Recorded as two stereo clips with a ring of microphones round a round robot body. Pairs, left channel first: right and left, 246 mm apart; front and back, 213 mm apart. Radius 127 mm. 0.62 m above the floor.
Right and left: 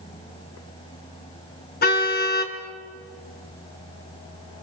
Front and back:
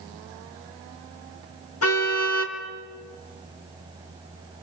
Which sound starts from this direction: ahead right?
A car horn, at 1.8 s.